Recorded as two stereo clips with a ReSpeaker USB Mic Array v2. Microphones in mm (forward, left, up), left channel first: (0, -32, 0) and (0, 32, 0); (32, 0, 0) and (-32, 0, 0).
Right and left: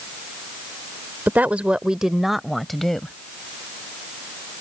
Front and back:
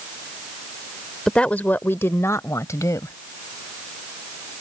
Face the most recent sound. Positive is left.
turn(degrees=-5)